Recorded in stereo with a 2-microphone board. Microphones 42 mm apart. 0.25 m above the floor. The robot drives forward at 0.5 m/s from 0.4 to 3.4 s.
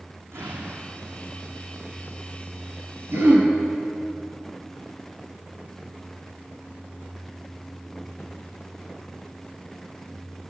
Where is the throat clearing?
60° right (ahead or behind), 5.5 m; by 3.5 s 55° right (ahead or behind), 5.5 m.